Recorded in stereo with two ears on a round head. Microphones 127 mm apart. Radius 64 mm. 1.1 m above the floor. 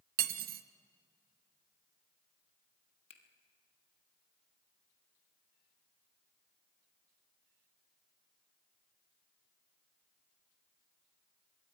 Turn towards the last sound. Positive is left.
turn(degrees=40)  # may be behind; listen again after turning